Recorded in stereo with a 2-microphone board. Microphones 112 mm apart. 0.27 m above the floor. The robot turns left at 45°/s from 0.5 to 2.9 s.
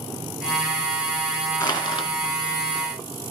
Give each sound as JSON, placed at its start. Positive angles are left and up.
{"t": 1.6, "sound": "crushing", "side_deg": 45, "distance_m": 2.5}